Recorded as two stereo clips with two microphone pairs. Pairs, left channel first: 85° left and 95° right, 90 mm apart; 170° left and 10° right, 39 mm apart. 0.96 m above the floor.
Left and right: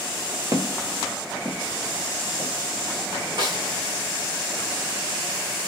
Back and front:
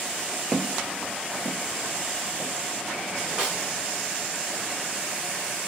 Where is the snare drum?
65° right, 1.7 m.